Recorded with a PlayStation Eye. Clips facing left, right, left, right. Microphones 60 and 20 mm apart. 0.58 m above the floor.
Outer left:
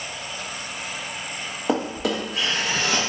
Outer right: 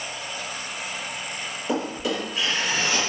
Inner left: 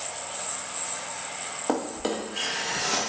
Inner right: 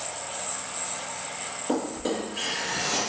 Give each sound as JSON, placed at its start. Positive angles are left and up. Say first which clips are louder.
{"t": 1.7, "sound": "a drawer", "louder": "outer left 3 dB, even", "side_deg": 75, "distance_m": 0.7}